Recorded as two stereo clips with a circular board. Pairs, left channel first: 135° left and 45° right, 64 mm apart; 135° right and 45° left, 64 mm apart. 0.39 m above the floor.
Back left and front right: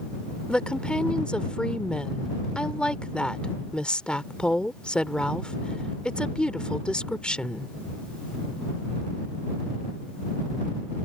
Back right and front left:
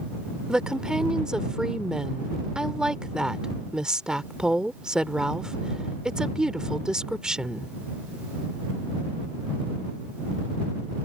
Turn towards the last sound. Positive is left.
turn(degrees=100)